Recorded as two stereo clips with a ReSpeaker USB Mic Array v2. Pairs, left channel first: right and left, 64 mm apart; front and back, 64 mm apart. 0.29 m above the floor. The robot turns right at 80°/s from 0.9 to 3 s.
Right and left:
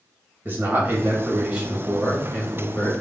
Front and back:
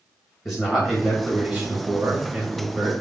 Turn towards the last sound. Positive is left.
turn(degrees=-95)